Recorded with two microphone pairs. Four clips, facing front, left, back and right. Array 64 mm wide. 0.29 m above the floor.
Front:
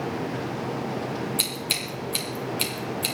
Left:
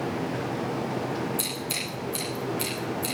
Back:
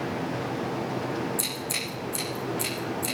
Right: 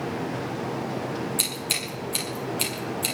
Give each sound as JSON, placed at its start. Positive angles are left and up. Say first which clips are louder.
{"t": 1.4, "sound": "scissors", "louder": "right 1 dB, front 1 dB", "azimuth_deg": -45, "distance_m": 7.0}